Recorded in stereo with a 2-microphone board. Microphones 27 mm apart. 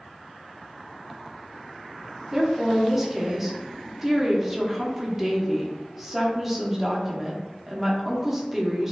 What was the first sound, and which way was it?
A woman speaking, 15° right (ahead or behind).